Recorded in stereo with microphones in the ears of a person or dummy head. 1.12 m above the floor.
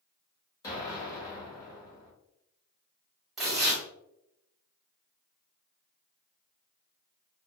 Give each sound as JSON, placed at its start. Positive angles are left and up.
{"t": 0.6, "sound": "an explosion", "side_deg": 20, "distance_m": 1.6}
{"t": 3.4, "sound": "tearing paper", "side_deg": 0, "distance_m": 1.3}